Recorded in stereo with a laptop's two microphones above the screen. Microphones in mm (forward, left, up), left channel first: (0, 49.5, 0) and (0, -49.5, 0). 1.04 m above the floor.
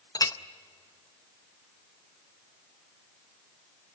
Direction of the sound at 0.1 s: 40° left (ahead or behind).